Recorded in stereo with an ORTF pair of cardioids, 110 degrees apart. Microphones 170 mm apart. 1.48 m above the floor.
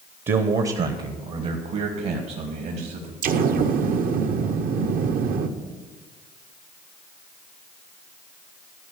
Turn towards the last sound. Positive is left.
turn(degrees=-55)